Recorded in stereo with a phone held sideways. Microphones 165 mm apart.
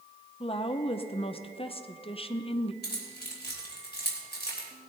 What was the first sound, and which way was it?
A woman speaking, 35° left (ahead or behind).